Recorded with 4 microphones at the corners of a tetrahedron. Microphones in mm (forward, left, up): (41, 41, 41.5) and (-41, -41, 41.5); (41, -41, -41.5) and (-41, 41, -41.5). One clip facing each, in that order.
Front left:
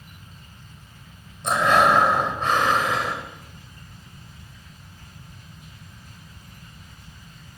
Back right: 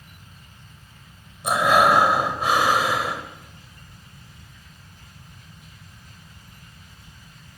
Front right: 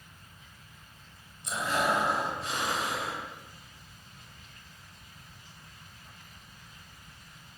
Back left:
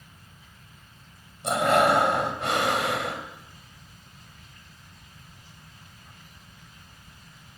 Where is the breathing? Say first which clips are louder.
Back right 1 dB, back left 9 dB; 145° left, 3 m.